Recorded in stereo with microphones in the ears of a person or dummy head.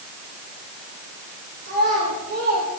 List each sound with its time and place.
1.6 s a child speaking: 55° right (ahead or behind), 3 m; by 2.7 s 45° right (ahead or behind), 3 m